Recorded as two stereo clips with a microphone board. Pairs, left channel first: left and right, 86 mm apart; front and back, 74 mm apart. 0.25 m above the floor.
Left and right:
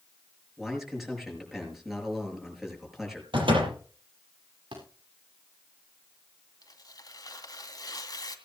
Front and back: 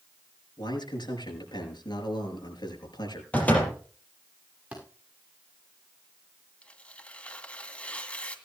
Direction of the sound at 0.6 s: 5° right.